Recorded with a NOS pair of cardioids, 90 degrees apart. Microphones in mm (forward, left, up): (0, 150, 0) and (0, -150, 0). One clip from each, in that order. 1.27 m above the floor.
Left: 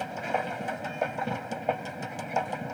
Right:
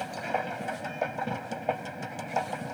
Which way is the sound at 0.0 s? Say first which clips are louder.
Left 1 dB; 10° left.